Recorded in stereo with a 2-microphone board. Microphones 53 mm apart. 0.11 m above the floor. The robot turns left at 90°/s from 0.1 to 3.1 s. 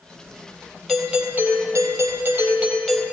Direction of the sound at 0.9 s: 10° left.